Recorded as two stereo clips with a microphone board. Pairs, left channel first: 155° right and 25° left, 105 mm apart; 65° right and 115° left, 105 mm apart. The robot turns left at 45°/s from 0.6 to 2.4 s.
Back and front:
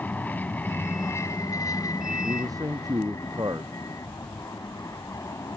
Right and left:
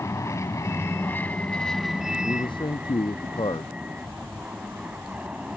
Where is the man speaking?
25° right; by 3.7 s 30° right.